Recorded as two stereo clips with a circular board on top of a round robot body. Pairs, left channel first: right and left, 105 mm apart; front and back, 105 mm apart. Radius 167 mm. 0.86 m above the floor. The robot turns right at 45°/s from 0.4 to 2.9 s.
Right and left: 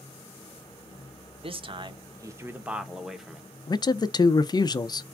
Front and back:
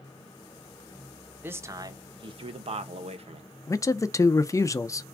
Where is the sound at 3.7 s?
50° right, 0.5 m.